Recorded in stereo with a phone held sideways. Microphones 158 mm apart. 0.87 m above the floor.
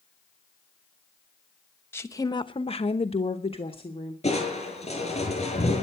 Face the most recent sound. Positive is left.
turn(degrees=40)  # may be behind; listen again after turning